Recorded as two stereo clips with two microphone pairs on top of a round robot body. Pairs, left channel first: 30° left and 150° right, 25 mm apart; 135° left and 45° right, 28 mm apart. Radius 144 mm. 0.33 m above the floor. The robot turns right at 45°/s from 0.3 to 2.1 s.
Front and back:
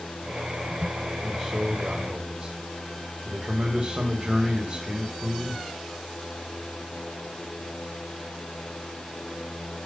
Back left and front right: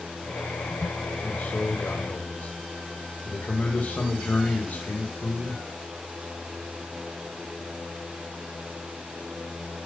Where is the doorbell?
No doorbell in this recording.